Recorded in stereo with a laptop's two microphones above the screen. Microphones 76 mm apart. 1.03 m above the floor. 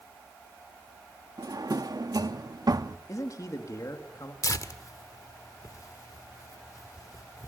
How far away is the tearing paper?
About 1.6 m.